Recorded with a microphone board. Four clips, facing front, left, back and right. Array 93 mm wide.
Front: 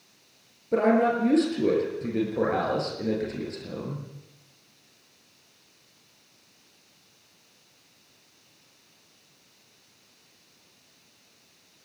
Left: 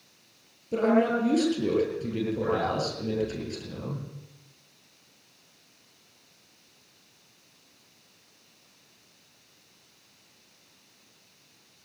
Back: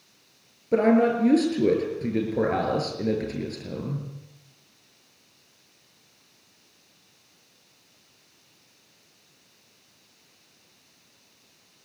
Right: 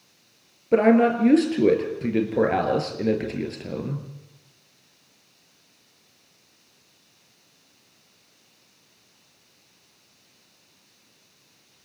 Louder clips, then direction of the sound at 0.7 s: Right 6 dB, back 2 dB; 95° right.